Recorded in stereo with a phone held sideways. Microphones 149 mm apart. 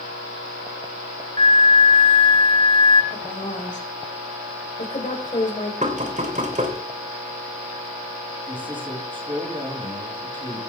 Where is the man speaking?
35° right (ahead or behind), 5 m.